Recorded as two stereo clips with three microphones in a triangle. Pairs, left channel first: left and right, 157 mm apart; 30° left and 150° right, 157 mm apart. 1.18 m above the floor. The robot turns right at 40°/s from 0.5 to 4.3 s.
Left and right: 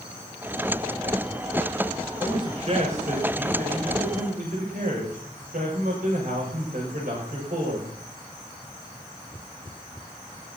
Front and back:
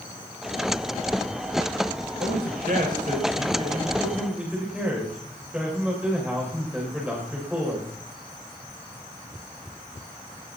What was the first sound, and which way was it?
A man speaking, 155° right.